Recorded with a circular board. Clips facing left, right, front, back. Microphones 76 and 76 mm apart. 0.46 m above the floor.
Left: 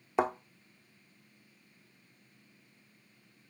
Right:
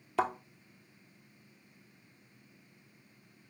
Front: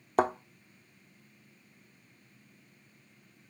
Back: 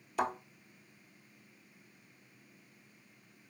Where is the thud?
25° left, 0.7 m.